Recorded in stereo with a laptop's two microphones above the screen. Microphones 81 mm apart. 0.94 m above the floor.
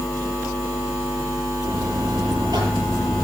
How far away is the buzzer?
About 9.5 m.